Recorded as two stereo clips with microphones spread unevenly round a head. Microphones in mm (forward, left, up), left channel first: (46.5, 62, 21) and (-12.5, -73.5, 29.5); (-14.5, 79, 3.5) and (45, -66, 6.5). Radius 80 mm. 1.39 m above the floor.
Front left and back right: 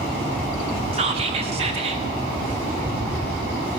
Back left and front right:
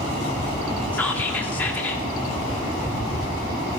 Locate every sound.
0.9 s whispering: 170° right, 1.2 m